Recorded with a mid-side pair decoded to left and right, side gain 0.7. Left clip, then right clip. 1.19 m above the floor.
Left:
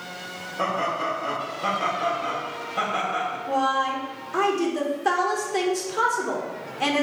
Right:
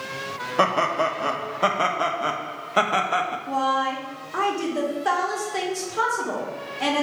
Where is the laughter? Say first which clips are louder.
Right 5 dB; 65° right, 1.0 m.